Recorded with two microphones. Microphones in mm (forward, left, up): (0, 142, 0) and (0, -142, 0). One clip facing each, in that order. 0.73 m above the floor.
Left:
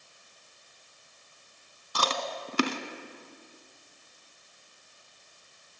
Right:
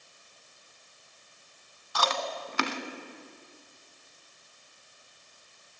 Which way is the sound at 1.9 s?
35° left (ahead or behind).